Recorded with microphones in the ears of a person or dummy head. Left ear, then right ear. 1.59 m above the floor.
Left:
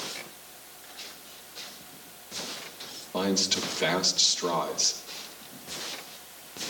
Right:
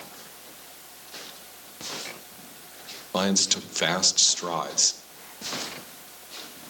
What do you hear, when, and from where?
3.1 s a man speaking: 60° right (ahead or behind), 1.7 m